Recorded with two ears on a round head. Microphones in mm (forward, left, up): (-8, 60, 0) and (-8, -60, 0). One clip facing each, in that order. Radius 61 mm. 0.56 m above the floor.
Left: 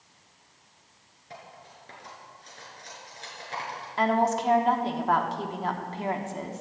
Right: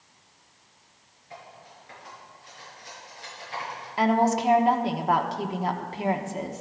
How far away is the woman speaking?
About 1.1 m.